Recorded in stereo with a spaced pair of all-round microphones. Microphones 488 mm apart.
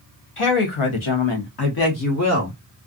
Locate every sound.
0.4 s a woman speaking: 80° left, 1.1 m; by 2.6 s 25° left (ahead or behind), 1.3 m